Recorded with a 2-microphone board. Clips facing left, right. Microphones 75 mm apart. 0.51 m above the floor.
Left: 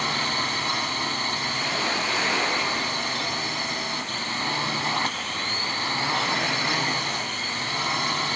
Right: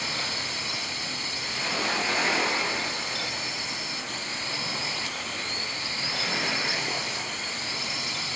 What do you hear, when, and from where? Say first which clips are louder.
0.0 s a drone: left 7 dB; 55° left (ahead or behind)